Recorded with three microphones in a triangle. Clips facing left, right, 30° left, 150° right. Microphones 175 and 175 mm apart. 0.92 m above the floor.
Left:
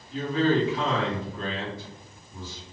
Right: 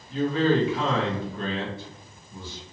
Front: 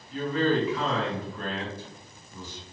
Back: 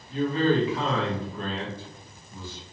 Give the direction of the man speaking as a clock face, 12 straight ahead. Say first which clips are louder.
Right 1 dB, back 2 dB; 3 o'clock.